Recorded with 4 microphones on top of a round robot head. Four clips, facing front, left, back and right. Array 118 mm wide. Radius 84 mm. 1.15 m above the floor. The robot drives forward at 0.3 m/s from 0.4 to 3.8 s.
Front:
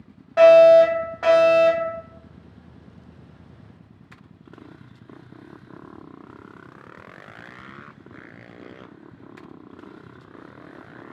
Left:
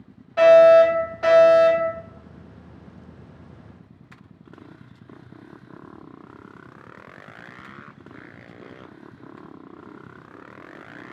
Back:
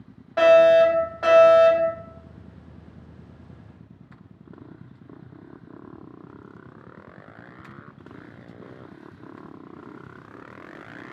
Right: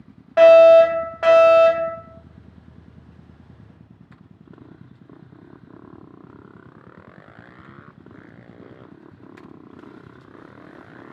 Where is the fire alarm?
80° right, 1.8 m; by 1.9 s 100° right, 1.8 m.